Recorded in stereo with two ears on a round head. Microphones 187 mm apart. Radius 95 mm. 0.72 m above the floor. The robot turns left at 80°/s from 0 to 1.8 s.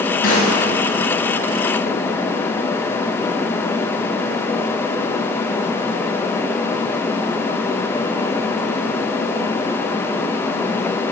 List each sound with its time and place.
0.2 s a snare drum: 45° left (ahead or behind), 3.5 m; by 0.6 s 15° left (ahead or behind), 3.5 m